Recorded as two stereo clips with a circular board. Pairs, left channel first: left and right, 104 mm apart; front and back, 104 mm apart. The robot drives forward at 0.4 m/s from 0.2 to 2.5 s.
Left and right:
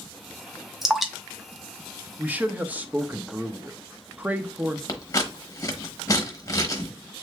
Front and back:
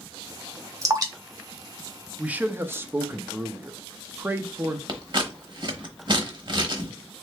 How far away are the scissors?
About 0.9 m.